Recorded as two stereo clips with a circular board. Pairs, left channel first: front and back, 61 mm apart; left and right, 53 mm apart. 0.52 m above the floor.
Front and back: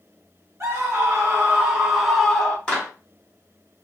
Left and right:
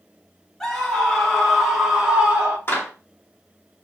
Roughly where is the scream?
Behind.